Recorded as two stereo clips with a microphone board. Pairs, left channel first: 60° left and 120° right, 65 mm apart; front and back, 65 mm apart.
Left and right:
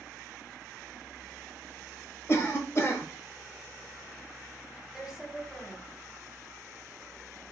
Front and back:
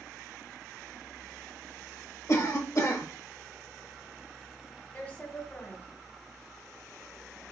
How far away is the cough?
About 1.4 m.